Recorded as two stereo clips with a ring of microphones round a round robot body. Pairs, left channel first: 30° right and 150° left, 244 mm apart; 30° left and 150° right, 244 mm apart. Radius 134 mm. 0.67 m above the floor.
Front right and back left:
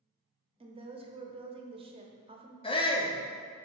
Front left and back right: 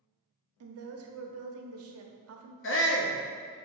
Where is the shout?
35° left, 1.0 m.